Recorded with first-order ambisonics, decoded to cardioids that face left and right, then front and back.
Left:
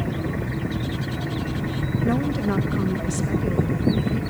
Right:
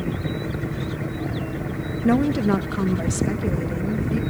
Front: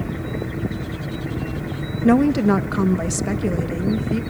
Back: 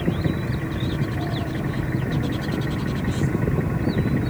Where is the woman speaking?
15° right, 1.3 m; by 4.2 s 10° right, 2.5 m.